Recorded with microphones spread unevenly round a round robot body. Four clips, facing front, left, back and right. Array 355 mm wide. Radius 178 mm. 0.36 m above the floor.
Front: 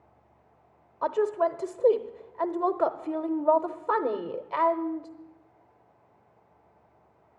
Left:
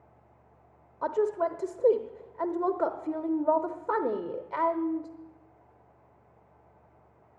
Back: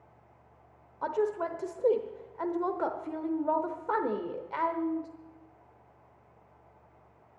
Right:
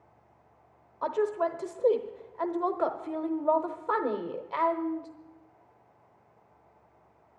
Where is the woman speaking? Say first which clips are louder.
Left 1 dB, front 5 dB; 50° left, 0.9 m.